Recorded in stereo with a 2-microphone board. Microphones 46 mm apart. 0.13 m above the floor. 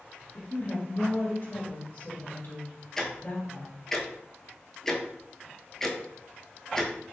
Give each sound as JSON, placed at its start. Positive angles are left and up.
{"t": 0.3, "sound": "a woman speaking", "side_deg": 50, "distance_m": 1.7}
{"t": 3.0, "sound": "ticking", "side_deg": 10, "distance_m": 0.6}